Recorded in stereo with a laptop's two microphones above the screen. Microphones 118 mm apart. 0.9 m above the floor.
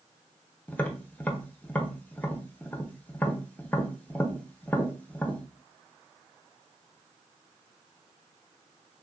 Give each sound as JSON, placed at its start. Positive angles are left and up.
{"t": 0.7, "sound": "tapping", "side_deg": 15, "distance_m": 0.7}